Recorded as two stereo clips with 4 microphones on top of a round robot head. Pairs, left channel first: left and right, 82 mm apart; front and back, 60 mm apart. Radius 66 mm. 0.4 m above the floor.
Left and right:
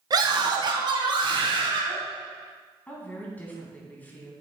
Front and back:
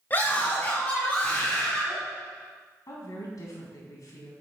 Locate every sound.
0.1 s a scream: 60° right, 1.9 m; by 2.0 s 75° right, 3 m
2.9 s a woman speaking: 20° left, 3 m